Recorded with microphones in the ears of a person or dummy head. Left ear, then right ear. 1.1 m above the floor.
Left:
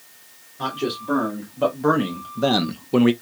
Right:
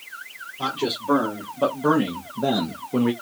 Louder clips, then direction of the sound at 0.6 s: Even; 5° right (ahead or behind).